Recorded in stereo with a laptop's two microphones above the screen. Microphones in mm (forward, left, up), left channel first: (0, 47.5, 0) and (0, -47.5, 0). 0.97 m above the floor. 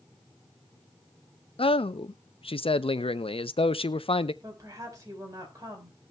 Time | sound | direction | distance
1.6 | a man speaking | 75° left (ahead or behind) | 0.6 m
4.4 | a woman speaking | 35° right (ahead or behind) | 4.5 m